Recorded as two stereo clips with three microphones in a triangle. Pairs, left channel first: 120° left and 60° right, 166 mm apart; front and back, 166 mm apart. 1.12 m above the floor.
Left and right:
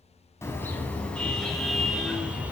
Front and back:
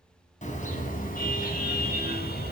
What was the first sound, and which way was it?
A car horn, 45° left.